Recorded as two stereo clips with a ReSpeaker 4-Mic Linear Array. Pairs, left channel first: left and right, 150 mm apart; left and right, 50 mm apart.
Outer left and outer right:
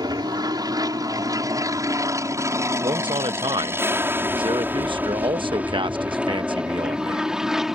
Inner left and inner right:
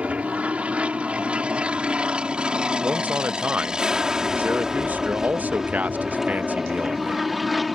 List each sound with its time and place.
0.0 s an aircraft: 25° right (ahead or behind); by 7.8 s 5° right (ahead or behind)
2.8 s a man speaking: 35° right (ahead or behind)